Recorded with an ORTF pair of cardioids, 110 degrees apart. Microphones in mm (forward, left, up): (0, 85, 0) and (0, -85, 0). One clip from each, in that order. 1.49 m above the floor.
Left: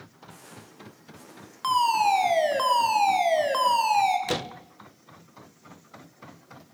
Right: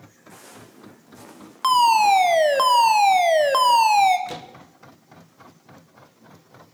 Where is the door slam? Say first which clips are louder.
Left 6 dB; 40° left, 0.7 m.